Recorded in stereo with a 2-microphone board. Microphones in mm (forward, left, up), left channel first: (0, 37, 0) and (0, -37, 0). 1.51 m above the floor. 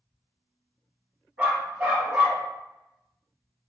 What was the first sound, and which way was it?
A dog barking, 20° right (ahead or behind).